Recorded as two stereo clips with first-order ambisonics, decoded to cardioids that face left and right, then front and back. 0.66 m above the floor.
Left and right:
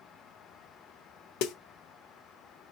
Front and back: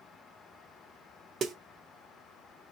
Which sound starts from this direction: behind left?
A snare drum, at 1.4 s.